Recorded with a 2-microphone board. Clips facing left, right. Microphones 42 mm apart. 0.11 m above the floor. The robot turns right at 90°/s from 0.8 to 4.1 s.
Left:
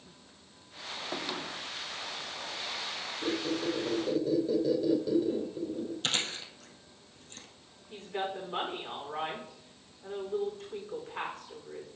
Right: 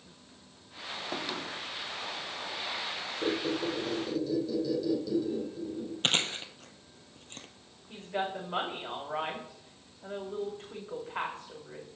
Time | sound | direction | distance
3.2 | a squeak | 50° right | 3 m
6.0 | chewing | 40° right (ahead or behind) | 1.4 m
7.9 | a woman speaking | 35° right (ahead or behind) | 7 m